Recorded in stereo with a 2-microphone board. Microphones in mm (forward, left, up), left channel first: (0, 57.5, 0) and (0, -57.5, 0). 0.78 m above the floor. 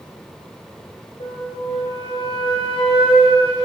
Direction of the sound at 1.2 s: 70° left (ahead or behind).